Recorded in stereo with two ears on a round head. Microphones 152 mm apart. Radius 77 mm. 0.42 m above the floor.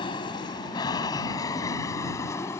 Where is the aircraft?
25° left (ahead or behind); by 2.6 s 15° left (ahead or behind).